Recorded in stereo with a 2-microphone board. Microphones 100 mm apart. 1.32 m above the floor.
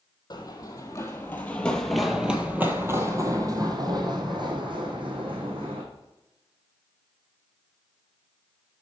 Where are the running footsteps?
45° left (ahead or behind), 1.7 m; by 5.8 s 60° right (ahead or behind), 3 m.